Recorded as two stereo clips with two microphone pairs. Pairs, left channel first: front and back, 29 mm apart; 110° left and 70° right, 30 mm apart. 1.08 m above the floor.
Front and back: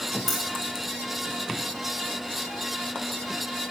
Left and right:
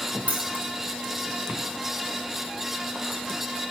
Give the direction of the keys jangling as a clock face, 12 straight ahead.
3 o'clock.